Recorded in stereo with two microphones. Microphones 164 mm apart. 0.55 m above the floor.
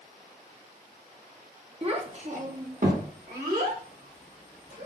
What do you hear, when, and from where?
1.8 s a child speaking: 35° right (ahead or behind), 0.9 m; by 4.9 s 70° right (ahead or behind), 2.5 m